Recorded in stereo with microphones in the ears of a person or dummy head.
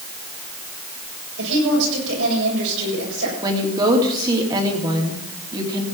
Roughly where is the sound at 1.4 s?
Right.